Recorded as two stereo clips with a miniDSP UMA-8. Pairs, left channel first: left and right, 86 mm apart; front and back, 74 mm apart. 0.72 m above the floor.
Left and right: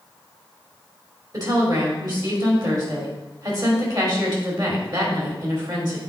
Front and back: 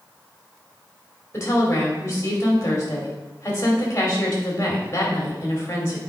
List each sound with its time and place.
1.3 s a woman speaking: 55° right, 2.5 m